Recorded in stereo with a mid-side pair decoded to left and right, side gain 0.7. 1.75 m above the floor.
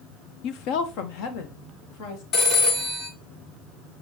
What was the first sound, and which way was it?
A woman speaking, 60° left.